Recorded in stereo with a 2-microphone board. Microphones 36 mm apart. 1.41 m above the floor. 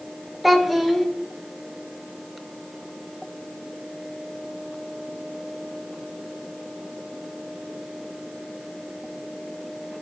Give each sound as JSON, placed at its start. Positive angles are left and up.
{"t": 0.4, "sound": "a child speaking", "side_deg": 0, "distance_m": 0.5}